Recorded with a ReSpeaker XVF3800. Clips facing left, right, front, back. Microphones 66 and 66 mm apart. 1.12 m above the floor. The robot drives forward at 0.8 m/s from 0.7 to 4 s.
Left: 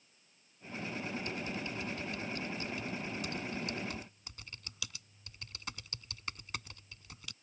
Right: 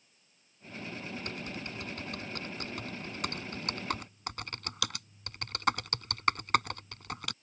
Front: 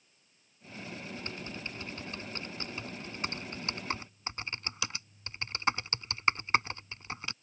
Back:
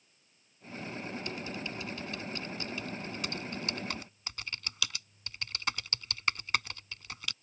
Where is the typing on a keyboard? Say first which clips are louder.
Left 1 dB, back 3 dB; 55° right; by 7.3 s 65° right.